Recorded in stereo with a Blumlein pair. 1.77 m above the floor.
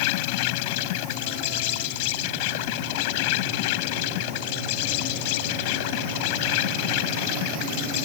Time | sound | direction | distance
0.0 | an insect | 45° left | ?